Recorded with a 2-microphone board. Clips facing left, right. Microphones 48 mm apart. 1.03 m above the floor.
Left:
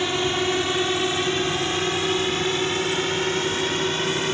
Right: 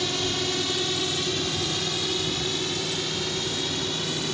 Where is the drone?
35° left (ahead or behind); by 4.3 s 45° left (ahead or behind).